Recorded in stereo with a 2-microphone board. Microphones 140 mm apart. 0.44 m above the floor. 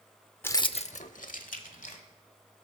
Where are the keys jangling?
15° left (ahead or behind), 0.5 m; by 2.0 s 75° left (ahead or behind), 1.7 m.